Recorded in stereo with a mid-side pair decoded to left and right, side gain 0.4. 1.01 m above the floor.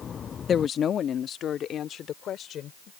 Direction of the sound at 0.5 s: 55° left.